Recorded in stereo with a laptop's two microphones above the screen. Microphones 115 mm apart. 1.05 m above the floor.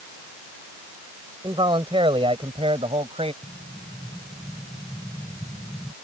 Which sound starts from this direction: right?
A man speaking, at 1.4 s.